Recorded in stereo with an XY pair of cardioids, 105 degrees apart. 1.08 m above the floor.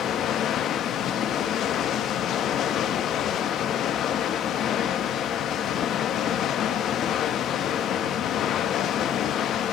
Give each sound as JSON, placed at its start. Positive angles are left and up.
{"t": 0.0, "sound": "running water", "azimuth_deg": 70, "distance_m": 1.1}